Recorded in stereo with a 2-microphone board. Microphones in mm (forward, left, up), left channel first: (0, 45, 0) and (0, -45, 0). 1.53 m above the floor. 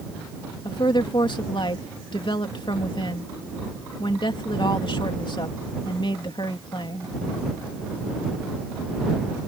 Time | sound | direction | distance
0.7 | a woman speaking | 60° left (ahead or behind) | ?